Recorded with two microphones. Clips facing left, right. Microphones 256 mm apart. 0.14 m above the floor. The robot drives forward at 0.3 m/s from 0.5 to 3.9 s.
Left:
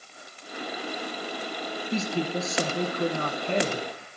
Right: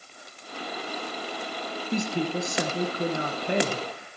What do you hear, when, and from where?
1.9 s a woman speaking: 15° right (ahead or behind), 1.1 m